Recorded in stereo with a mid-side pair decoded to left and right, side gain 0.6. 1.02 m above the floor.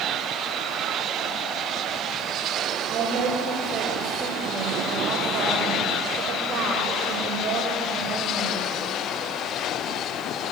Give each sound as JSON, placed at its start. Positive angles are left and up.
{"t": 2.9, "sound": "a woman speaking", "azimuth_deg": -45, "distance_m": 5.0}